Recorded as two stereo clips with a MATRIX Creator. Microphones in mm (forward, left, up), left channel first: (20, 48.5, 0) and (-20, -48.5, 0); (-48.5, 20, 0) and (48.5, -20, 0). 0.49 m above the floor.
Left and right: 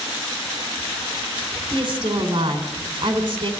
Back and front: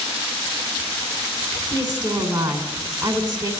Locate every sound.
1.7 s a woman speaking: 70° right, 3.5 m